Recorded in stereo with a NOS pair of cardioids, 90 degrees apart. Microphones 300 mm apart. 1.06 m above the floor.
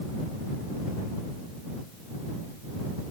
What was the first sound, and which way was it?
Only background noise.